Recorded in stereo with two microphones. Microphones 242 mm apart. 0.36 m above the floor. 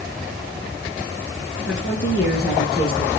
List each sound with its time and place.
1.7 s a woman speaking: 50° left (ahead or behind), 4.5 m; by 3.1 s 30° left (ahead or behind), 4 m